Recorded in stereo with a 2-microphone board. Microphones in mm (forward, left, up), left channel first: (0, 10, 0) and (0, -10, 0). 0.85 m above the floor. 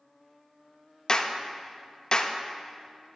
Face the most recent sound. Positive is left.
turn(degrees=45)  # may be behind; listen again after turning